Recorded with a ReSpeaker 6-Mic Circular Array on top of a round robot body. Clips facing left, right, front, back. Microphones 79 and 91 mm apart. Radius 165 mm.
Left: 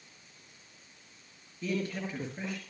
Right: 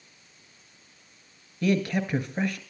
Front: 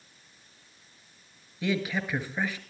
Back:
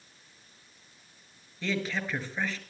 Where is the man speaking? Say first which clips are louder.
Right 9 dB, front 3 dB; 80° right, 5 m.